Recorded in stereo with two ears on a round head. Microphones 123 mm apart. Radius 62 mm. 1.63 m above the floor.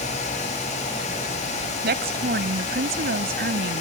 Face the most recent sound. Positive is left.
turn(degrees=-80)